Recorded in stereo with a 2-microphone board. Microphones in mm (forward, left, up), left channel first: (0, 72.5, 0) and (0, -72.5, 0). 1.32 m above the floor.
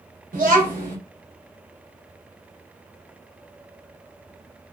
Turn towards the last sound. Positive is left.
turn(degrees=-60)  # may be behind; listen again after turning